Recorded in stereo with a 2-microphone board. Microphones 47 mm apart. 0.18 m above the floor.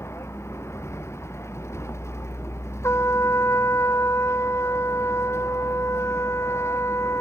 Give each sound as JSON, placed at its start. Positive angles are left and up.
{"t": 0.0, "sound": "a vehicle", "side_deg": 80}
{"t": 2.8, "sound": "a trumpet", "side_deg": 80}